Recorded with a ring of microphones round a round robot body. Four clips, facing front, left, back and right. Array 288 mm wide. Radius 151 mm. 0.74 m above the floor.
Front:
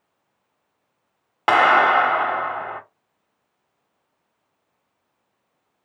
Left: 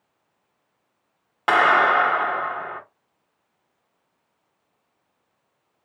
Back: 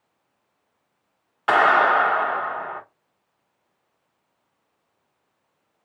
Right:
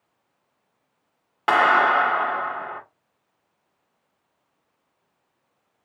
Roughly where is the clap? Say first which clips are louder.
Even, front 2 dB; ahead.